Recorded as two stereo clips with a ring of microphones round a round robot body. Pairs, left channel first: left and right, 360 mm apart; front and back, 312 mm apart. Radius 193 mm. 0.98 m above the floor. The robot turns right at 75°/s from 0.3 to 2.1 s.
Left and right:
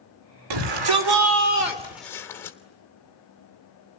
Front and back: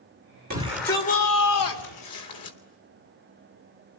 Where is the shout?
115° right, 3 m; by 2.6 s 5° left, 3 m.